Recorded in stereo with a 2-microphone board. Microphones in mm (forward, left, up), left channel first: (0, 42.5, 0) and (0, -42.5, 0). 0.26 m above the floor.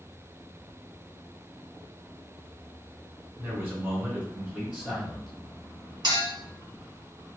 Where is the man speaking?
30° right (ahead or behind), 1.1 m; by 5.3 s 5° right (ahead or behind), 1.6 m.